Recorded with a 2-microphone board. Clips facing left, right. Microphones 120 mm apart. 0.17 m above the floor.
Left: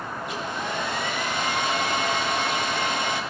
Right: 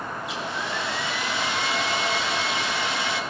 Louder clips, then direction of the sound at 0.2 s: Left 2 dB; 50° left (ahead or behind).